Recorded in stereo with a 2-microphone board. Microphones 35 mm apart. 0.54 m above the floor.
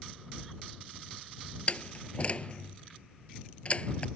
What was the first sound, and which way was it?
A door slam, 35° left (ahead or behind).